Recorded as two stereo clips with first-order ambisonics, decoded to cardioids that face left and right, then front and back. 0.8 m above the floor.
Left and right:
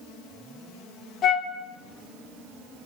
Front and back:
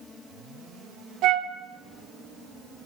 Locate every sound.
1.2 s a flute: 145° left, 1.5 m